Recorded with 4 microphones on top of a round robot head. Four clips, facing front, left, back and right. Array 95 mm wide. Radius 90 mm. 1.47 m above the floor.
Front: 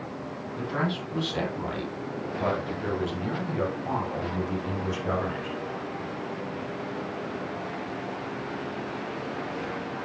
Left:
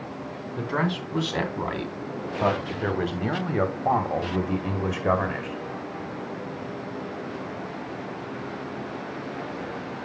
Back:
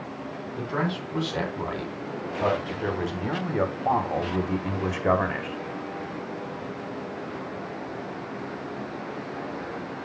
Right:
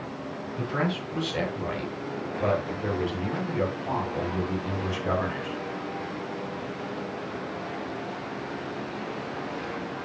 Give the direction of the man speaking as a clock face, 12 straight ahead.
9 o'clock.